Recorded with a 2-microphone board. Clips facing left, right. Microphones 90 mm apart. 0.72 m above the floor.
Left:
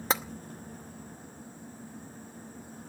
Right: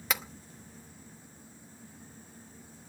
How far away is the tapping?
About 0.8 m.